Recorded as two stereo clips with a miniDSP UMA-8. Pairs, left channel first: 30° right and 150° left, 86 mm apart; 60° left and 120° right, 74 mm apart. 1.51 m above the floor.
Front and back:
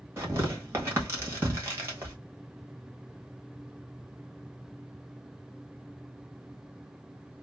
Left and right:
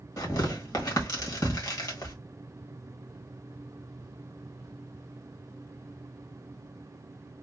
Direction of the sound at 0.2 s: 90° left.